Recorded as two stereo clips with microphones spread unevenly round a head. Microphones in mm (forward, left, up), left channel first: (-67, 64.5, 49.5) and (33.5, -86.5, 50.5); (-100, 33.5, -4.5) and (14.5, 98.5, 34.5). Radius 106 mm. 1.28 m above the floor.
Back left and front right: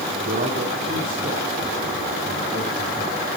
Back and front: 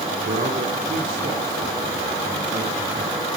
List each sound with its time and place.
0.2 s a man speaking: 15° right, 3 m; by 3.4 s straight ahead, 4.5 m